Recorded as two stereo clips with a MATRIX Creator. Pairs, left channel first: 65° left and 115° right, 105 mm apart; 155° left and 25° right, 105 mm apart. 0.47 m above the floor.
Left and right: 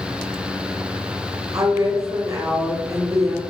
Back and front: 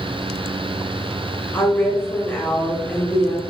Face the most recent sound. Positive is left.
turn(degrees=-140)